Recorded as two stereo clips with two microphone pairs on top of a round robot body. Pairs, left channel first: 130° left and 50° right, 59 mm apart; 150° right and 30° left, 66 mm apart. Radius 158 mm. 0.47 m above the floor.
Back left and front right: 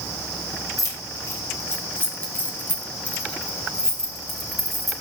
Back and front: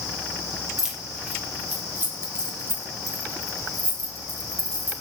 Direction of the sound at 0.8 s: 110° left.